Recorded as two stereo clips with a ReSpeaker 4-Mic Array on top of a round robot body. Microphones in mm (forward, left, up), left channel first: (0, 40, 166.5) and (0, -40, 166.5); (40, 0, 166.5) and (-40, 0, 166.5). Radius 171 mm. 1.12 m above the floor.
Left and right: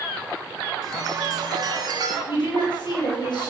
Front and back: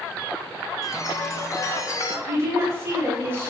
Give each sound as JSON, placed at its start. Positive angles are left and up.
{"t": 0.8, "sound": "a chime", "azimuth_deg": -50, "distance_m": 0.9}
{"t": 2.3, "sound": "a woman speaking", "azimuth_deg": 120, "distance_m": 3.0}